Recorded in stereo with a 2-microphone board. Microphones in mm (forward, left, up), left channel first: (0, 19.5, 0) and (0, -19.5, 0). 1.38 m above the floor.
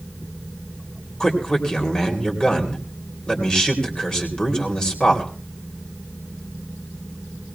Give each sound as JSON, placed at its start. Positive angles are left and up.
{"t": 1.2, "sound": "a man speaking", "side_deg": 20, "distance_m": 3.0}